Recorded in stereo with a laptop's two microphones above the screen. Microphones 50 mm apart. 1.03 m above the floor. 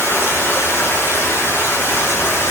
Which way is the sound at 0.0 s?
45° left (ahead or behind).